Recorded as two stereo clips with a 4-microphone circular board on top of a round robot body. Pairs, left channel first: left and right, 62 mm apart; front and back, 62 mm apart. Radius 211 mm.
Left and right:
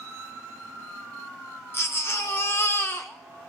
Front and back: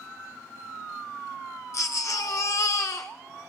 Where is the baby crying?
40° left, 0.6 m.